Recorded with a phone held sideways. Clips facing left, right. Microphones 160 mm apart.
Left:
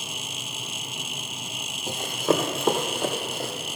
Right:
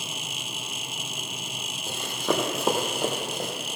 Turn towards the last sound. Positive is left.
turn(degrees=-20)  # may be behind; listen again after turning